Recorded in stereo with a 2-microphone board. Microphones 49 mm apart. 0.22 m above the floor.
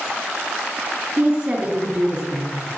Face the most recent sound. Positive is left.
turn(degrees=-40)  # may be behind; listen again after turning